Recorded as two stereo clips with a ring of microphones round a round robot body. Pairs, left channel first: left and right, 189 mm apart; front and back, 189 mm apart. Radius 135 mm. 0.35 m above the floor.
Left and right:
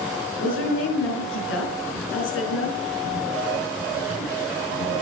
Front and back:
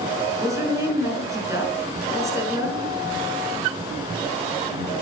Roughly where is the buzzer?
I don't hear a buzzer.